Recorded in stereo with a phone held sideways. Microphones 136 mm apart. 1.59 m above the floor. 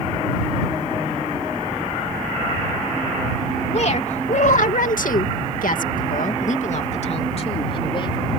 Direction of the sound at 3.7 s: 50° left (ahead or behind).